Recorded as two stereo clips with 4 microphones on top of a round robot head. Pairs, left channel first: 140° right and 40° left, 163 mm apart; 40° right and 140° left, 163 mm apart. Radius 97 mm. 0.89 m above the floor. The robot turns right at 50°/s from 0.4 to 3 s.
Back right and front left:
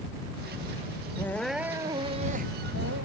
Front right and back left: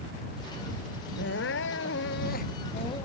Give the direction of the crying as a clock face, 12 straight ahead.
2 o'clock.